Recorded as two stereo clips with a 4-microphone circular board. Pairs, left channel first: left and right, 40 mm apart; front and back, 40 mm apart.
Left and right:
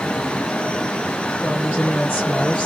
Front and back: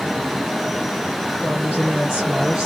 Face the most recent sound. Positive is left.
turn(degrees=115)